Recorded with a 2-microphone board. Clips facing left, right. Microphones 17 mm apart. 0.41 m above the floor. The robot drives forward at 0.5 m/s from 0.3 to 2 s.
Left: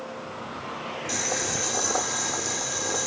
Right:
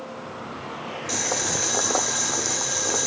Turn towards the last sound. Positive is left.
turn(degrees=-25)  # may be behind; listen again after turning